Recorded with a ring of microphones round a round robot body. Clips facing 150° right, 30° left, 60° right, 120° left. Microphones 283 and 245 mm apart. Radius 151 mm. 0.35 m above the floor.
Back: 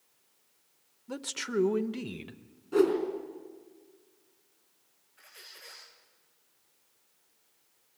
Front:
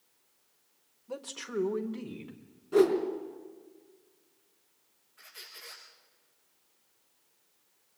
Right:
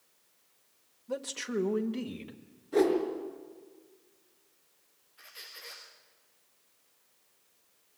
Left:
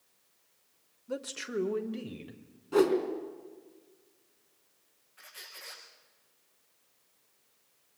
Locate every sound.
1.1 s a man speaking: 170° right, 1.0 m; by 2.4 s 145° right, 1.4 m
2.7 s a whoosh: 115° left, 4 m
5.2 s a squeak: 110° left, 7 m